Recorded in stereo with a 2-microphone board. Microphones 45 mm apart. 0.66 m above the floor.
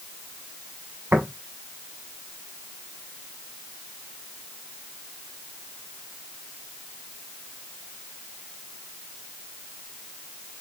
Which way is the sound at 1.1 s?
65° right (ahead or behind).